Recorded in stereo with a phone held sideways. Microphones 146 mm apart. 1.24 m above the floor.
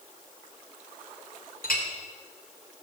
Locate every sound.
1.6 s a clink: 75° left (ahead or behind), 2.5 m